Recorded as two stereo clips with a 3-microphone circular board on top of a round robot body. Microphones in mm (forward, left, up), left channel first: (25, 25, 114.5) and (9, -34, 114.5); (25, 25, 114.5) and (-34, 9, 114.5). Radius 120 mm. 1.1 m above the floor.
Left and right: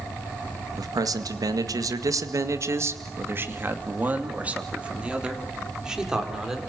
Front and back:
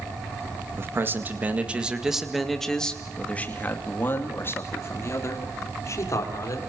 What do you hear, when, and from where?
0.8 s a man speaking: 115° right, 2.5 m; by 6.6 s 25° right, 5 m